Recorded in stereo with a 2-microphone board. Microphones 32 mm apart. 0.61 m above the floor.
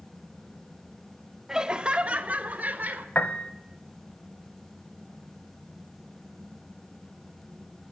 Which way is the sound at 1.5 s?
20° right (ahead or behind).